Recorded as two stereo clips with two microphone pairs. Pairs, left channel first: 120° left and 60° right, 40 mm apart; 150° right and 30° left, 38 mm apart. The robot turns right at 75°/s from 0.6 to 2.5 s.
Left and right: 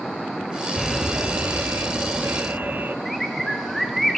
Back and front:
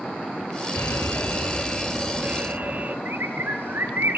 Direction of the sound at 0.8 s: 145° right.